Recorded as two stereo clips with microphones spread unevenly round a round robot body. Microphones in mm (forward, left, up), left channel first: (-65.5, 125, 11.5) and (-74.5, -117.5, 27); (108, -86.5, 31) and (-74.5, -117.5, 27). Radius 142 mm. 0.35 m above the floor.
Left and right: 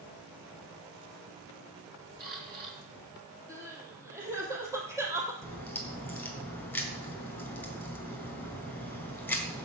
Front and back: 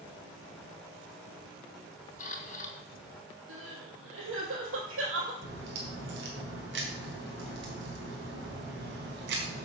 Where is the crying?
170° right, 3 m.